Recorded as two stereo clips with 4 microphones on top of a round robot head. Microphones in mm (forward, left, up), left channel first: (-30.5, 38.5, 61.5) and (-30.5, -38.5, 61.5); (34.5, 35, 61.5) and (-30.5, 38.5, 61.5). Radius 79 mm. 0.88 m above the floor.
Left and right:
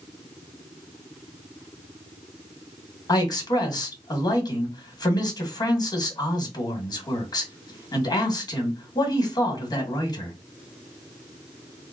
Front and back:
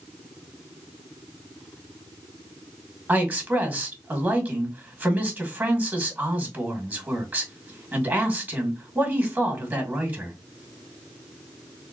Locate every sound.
3.1 s a man speaking: 115° left, 1.9 m